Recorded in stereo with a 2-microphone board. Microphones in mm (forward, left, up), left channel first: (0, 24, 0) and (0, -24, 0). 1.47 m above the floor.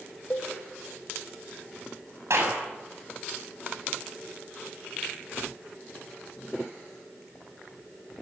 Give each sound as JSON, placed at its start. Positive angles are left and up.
{"t": 0.3, "sound": "a cowbell", "side_deg": 35, "distance_m": 1.3}
{"t": 2.3, "sound": "a clap", "side_deg": -70, "distance_m": 8.0}